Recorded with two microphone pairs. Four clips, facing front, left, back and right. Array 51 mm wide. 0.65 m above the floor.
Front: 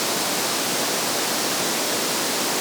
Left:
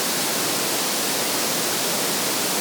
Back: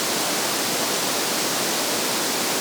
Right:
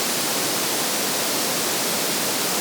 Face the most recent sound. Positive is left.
No sound to turn to.